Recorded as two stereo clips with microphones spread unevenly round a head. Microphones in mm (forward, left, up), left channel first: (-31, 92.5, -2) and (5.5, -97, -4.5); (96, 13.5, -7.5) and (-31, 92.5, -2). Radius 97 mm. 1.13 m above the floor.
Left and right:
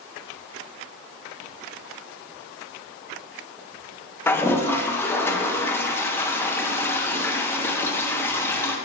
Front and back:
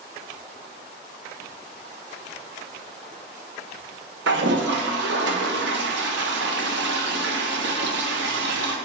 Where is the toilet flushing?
Straight behind, 0.8 m.